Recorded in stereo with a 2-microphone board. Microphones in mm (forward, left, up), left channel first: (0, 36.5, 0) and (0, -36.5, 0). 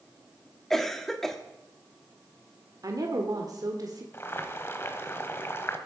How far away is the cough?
About 0.8 m.